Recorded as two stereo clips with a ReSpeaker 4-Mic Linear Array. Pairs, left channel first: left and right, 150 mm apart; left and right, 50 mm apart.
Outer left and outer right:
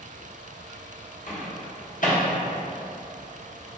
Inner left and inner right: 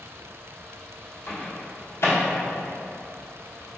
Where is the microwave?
60° left (ahead or behind), 1.0 m.